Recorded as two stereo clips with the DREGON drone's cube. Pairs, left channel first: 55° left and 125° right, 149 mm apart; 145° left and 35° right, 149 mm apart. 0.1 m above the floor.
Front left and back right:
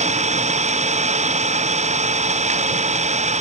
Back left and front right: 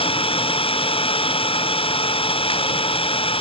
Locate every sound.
0.0 s an engine running: 160° right